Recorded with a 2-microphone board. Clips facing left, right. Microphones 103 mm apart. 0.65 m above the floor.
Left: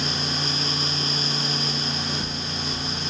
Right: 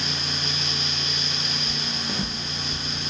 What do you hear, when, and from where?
1.7 s footsteps: 50° right (ahead or behind), 2.0 m